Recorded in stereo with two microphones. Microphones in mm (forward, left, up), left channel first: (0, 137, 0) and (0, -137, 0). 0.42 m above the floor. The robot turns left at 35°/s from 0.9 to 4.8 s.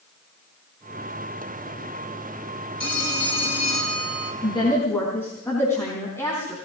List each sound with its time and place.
2.8 s a phone ringing: 110° left, 2.5 m; by 4.3 s 55° left, 2.5 m
4.4 s a woman speaking: 20° left (ahead or behind), 4 m; by 6.6 s 10° left (ahead or behind), 4 m